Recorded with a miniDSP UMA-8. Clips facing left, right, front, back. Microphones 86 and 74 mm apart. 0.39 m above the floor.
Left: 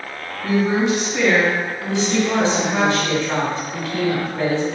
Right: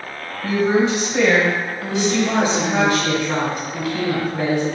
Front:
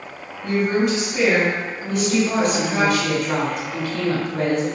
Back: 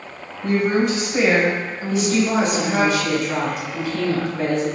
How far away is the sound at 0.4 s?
About 2 m.